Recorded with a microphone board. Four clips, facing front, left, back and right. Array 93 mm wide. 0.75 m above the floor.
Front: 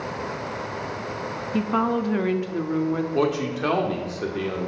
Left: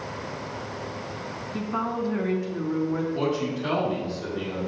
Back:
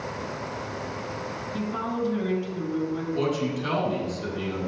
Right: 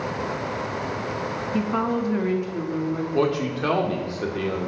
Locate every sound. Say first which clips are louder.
1.5 s a woman speaking: right 4 dB, front 7 dB; 25° right, 0.9 m; by 3.0 s 10° left, 1.4 m
3.1 s a man speaking: right 4 dB, front 1 dB; 40° right, 1.9 m